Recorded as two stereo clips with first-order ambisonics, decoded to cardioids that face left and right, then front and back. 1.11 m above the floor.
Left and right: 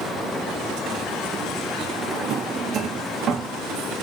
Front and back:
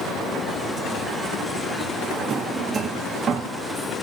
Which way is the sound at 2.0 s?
125° right.